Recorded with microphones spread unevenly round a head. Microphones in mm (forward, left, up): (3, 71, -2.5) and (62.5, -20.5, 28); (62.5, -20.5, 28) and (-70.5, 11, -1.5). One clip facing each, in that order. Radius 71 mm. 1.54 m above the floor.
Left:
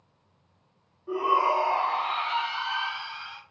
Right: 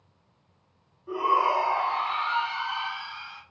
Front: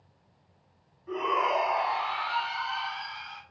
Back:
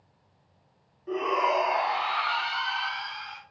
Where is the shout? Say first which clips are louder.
Even, back 2 dB; 140° right, 1.0 m; by 3.4 s 130° left, 1.0 m.